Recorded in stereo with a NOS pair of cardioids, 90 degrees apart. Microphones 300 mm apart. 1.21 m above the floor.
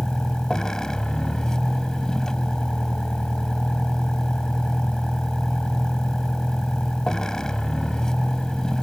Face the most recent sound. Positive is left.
turn(degrees=0)